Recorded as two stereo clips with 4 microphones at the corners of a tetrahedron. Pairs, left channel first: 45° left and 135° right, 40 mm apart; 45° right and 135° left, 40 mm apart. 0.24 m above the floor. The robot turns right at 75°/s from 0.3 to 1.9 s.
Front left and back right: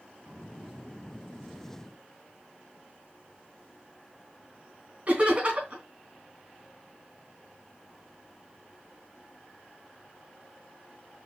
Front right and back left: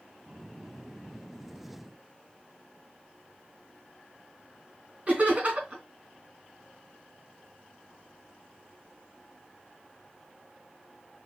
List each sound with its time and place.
5.1 s laughter: straight behind, 2.5 m